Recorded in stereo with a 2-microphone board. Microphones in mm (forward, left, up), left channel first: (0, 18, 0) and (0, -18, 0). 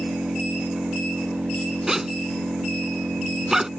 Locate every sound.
0.0 s an engine running: 80° right
1.9 s a zipper: 15° right (ahead or behind)